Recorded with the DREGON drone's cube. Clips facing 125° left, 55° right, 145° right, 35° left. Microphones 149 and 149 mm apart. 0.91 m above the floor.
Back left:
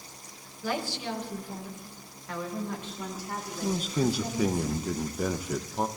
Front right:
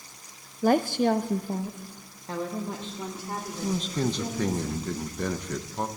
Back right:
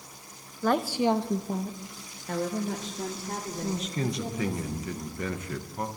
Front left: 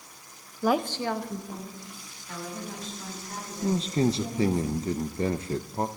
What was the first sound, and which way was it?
A woman speaking, 40° right.